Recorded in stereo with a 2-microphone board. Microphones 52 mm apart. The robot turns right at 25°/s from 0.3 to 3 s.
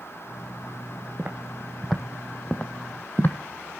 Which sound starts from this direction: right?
Footsteps, at 1.2 s.